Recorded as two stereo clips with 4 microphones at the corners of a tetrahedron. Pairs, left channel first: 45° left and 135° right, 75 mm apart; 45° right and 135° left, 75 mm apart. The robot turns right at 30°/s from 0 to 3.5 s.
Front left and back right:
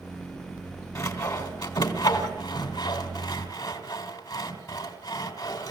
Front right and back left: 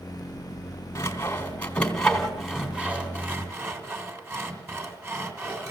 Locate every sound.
0.9 s sawing: 5° left, 2.5 m; by 5.7 s 80° left, 2.5 m